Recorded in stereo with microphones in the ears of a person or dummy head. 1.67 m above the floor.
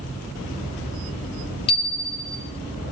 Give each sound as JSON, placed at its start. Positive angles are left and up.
{"t": 1.7, "sound": "a bicycle bell", "side_deg": 30, "distance_m": 4.5}